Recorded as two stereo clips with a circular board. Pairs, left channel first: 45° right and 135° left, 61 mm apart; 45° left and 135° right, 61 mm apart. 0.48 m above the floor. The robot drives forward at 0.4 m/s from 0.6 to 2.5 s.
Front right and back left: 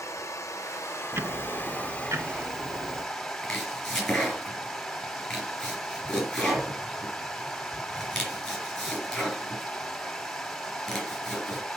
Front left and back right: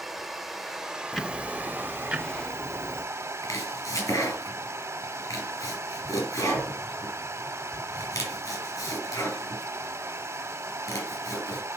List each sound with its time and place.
0.0 s running water: 45° right, 0.8 m; by 11.8 s 125° right, 0.7 m
1.1 s ticking: 130° left, 0.7 m; by 3.0 s 155° left, 1.1 m
3.4 s chopping: 40° left, 3.5 m